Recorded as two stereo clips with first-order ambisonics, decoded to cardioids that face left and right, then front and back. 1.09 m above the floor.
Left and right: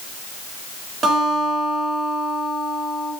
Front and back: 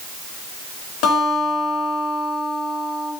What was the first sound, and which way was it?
A guitar, 20° right.